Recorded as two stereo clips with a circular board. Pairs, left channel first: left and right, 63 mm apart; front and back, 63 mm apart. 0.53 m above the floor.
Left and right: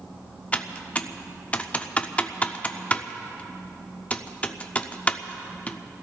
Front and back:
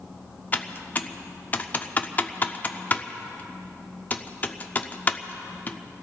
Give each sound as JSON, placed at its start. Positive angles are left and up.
{"t": 0.5, "sound": "typing on a keyboard", "azimuth_deg": 40, "distance_m": 0.7}